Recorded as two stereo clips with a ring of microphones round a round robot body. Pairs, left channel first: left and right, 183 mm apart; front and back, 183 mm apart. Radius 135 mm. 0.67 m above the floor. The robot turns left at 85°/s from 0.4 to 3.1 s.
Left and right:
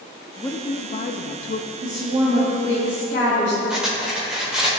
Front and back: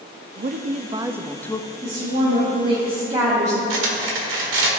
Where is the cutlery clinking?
175° right, 1.4 m.